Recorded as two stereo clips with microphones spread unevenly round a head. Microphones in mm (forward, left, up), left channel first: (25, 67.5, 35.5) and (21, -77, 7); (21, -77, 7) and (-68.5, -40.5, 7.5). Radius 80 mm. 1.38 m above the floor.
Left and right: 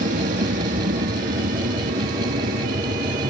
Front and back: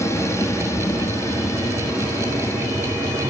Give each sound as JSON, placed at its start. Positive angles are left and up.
{"t": 0.0, "sound": "an aircraft", "azimuth_deg": -80}